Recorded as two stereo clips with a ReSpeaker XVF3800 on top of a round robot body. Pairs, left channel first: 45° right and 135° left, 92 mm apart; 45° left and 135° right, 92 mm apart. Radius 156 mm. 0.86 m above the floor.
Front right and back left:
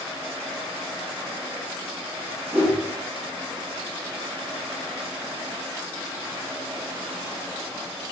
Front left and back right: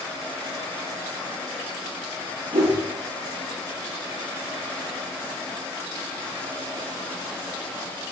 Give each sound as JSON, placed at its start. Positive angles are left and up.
{"t": 2.5, "sound": "a whoosh", "azimuth_deg": -145, "distance_m": 0.5}